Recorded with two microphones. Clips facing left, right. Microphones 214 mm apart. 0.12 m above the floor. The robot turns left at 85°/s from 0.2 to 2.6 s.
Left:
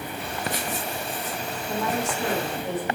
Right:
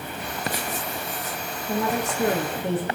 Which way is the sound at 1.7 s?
5° right.